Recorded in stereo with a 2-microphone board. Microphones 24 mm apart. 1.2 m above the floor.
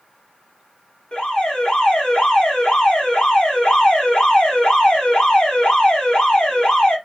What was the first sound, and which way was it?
An alarm, 40° left (ahead or behind).